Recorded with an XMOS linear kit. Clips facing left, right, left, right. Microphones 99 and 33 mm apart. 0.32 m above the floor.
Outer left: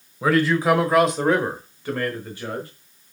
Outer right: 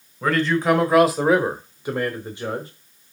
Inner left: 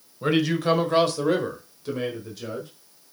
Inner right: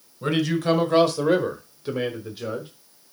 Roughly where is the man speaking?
Centre.